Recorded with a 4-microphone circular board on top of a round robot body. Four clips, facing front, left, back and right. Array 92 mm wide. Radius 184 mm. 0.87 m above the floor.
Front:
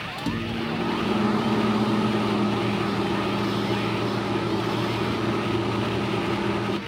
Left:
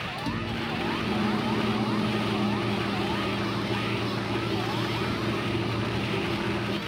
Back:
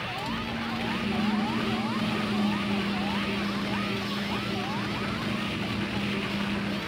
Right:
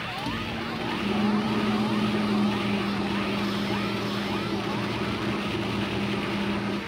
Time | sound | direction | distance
0.2 | a microwave | straight ahead | 2 m